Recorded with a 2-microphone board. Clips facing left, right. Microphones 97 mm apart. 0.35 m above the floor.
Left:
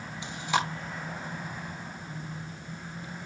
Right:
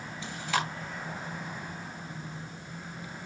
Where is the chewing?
20° left (ahead or behind), 2 m.